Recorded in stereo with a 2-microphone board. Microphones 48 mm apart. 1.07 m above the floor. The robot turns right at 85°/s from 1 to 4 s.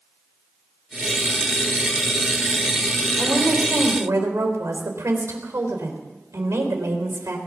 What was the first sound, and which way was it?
A woman speaking, 145° right.